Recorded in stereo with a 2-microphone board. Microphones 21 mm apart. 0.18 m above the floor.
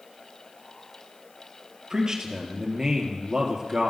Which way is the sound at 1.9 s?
25° right (ahead or behind).